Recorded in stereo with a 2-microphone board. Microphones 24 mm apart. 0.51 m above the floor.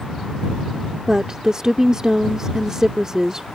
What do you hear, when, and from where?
1.1 s a woman speaking: 25° right (ahead or behind)